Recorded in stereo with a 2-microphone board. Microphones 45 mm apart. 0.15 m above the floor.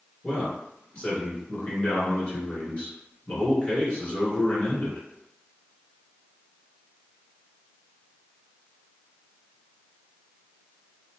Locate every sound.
0.2 s a man speaking: 25° left (ahead or behind), 1.8 m